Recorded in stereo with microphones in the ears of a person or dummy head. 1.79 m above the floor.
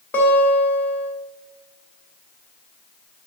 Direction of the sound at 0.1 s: 10° left (ahead or behind).